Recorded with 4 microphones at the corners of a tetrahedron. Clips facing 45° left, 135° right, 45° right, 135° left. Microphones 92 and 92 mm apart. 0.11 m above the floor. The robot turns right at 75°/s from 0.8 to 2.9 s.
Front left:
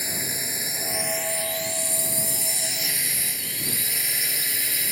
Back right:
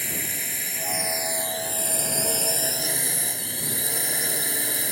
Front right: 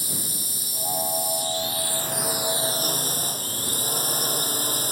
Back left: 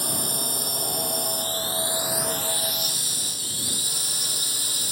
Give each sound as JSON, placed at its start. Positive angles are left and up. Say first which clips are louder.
{"t": 0.0, "sound": "a drone", "louder": "front left 1 dB, back left 6 dB", "azimuth_deg": 120}